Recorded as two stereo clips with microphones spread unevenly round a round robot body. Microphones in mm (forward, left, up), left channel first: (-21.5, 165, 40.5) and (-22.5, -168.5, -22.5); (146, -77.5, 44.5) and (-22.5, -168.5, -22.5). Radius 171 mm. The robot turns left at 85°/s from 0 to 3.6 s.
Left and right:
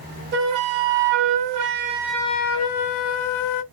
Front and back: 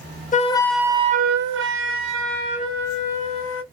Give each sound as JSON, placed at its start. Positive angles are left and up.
{"t": 0.3, "sound": "a flute", "azimuth_deg": -25, "distance_m": 0.7}